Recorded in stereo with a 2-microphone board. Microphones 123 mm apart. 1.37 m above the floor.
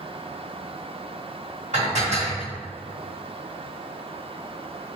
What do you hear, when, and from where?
1.7 s dishes clattering: 70° right (ahead or behind), 1.6 m